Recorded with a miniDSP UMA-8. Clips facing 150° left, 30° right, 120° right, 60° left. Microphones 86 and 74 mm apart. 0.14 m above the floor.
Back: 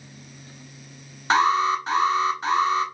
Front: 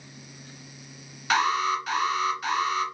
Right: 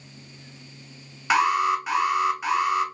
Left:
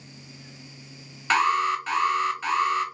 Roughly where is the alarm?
Behind.